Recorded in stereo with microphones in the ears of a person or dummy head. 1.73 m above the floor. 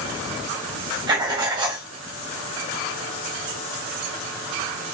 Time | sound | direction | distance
1.1 | writing | 25° right (ahead or behind) | 1.3 m